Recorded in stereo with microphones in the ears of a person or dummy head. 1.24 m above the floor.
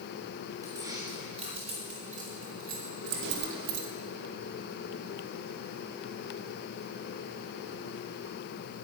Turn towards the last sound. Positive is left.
turn(degrees=-85)